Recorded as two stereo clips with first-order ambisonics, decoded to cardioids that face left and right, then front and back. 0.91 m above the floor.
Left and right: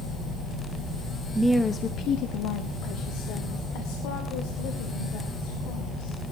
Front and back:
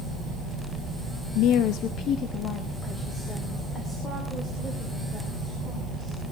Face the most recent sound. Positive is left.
turn(degrees=85)